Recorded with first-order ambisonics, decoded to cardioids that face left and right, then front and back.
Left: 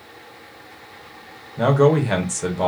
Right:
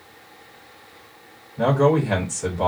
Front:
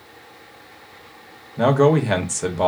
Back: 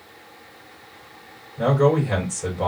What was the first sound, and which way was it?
A man speaking, 25° left.